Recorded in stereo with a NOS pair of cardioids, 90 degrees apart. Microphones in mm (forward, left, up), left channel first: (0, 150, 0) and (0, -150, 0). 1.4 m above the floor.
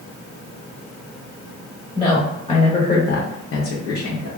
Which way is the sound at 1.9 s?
Straight ahead.